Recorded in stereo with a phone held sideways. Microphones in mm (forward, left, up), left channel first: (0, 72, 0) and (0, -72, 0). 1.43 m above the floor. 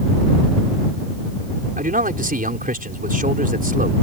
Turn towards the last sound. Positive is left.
turn(degrees=-75)  # may be behind; listen again after turning